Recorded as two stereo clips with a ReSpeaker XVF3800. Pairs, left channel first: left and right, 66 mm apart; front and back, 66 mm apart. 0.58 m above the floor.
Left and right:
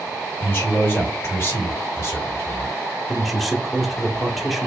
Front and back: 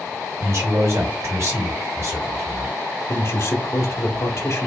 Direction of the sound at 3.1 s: Straight ahead.